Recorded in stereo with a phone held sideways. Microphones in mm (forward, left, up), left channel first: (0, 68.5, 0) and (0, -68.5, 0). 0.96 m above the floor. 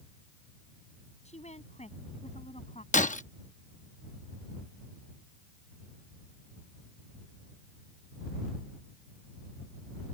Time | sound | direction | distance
1.2 | a woman speaking | 55° left (ahead or behind) | ?
2.9 | breaking glass | 65° left (ahead or behind) | ?